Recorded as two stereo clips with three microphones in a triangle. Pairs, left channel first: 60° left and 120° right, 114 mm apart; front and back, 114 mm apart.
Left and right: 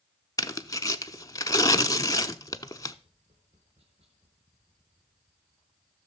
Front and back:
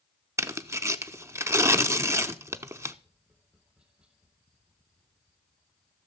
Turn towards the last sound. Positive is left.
turn(degrees=-100)